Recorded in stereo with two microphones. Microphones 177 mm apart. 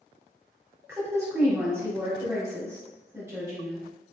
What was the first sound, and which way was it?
A woman speaking, 15° right (ahead or behind).